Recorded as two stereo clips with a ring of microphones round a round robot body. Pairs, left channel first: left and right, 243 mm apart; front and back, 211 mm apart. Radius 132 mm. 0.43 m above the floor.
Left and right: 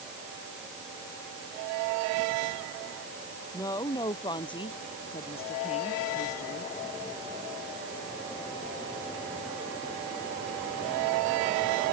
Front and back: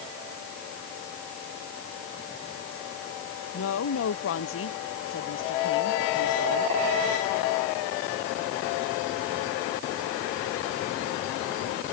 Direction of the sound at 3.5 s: 15° left.